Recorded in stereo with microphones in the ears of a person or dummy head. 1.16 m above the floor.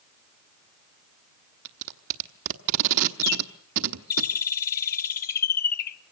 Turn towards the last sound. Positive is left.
turn(degrees=50)  # may be behind; listen again after turning